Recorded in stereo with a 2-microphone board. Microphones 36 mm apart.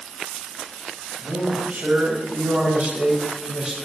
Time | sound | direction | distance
1.2 | a man speaking | 65° right (ahead or behind) | 2 m